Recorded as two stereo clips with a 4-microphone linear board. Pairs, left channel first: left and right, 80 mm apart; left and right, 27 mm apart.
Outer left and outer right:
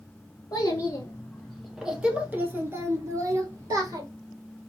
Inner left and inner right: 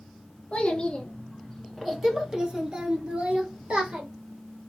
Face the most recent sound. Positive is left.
turn(degrees=-50)  # may be behind; listen again after turning